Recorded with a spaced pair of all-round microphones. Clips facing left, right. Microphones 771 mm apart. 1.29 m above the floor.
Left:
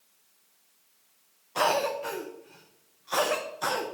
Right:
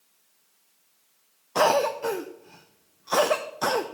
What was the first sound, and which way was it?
A cough, 70° right (ahead or behind).